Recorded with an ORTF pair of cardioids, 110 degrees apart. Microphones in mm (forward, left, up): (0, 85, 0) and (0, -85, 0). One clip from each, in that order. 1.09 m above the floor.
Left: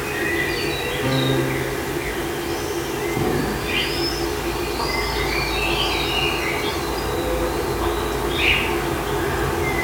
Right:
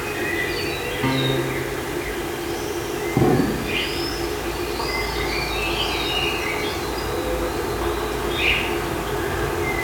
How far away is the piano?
About 8.5 m.